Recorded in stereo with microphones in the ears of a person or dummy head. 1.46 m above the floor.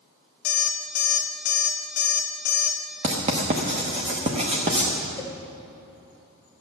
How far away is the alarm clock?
About 1.1 m.